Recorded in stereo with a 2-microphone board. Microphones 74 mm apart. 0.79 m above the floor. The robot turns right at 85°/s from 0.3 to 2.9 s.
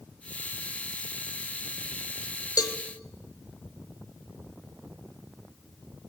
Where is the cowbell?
60° left (ahead or behind), 2.5 m; by 2.8 s 40° left (ahead or behind), 2.5 m.